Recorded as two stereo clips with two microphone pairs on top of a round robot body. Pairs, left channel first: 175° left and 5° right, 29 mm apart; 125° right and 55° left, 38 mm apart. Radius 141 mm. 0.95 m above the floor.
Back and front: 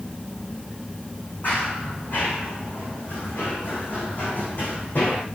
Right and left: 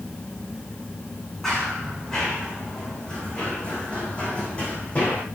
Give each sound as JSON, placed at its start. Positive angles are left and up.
{"t": 1.4, "sound": "running footsteps", "azimuth_deg": 160, "distance_m": 4.0}